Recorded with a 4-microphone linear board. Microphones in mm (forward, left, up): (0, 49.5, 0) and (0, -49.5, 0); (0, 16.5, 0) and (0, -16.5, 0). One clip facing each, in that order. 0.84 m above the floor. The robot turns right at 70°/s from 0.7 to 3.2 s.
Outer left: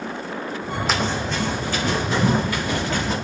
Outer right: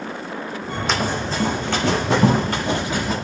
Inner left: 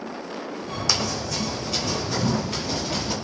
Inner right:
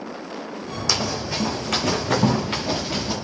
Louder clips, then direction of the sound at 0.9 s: Outer right 1 dB, inner right 2 dB; 5° left (ahead or behind).